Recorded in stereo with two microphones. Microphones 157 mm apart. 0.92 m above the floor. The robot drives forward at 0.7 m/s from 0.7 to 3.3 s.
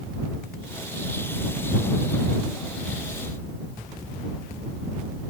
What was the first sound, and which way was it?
Only background noise.